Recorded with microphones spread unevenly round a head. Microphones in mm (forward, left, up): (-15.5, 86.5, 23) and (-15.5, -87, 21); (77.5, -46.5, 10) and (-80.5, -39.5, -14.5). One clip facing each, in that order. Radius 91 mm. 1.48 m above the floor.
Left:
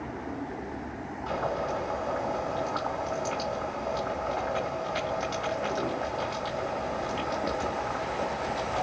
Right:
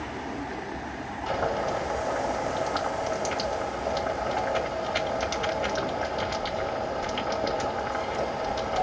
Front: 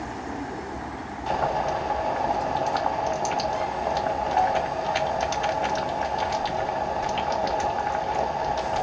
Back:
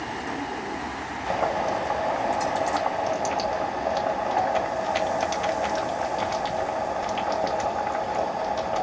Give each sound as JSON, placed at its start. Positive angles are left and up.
{"t": 1.3, "sound": "boiling", "azimuth_deg": -105, "distance_m": 2.0}